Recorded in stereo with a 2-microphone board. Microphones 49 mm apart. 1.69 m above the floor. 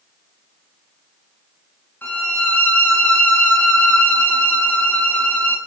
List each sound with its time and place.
2.0 s a violin: 40° left (ahead or behind), 3.5 m